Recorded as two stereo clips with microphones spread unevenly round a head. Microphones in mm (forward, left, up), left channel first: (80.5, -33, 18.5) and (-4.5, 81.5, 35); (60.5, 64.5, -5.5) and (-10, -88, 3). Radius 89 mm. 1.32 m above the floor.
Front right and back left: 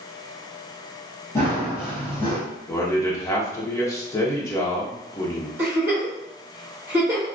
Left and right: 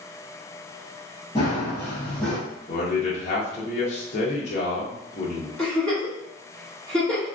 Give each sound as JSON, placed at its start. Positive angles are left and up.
{"t": 1.4, "sound": "running footsteps", "azimuth_deg": 20, "distance_m": 1.5}
{"t": 2.7, "sound": "a man speaking", "azimuth_deg": 15, "distance_m": 0.7}
{"t": 5.6, "sound": "a giggle", "azimuth_deg": 145, "distance_m": 0.9}